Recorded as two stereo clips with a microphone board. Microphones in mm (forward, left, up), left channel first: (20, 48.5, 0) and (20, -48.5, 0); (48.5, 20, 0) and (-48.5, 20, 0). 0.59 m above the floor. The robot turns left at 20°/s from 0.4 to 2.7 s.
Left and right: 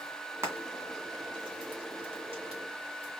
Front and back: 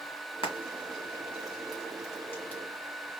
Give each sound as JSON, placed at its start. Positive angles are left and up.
{"t": 0.4, "sound": "frying", "azimuth_deg": -30, "distance_m": 2.0}